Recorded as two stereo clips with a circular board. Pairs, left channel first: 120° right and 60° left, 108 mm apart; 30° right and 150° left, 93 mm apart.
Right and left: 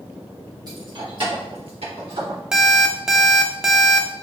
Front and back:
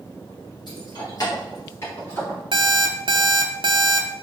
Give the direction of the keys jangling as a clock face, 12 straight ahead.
12 o'clock.